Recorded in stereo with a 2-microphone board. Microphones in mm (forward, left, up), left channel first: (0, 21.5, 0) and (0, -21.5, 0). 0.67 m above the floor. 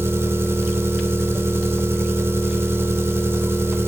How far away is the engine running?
About 1.1 m.